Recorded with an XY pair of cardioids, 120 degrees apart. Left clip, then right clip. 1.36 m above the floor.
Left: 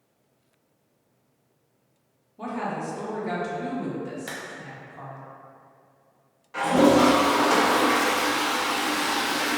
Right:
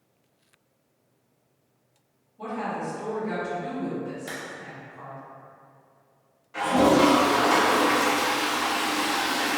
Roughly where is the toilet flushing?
Ahead left.